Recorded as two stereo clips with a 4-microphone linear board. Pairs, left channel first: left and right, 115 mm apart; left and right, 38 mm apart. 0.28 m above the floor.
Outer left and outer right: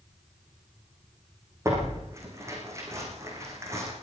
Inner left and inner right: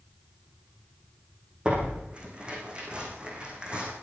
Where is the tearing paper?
25° right (ahead or behind), 9 m.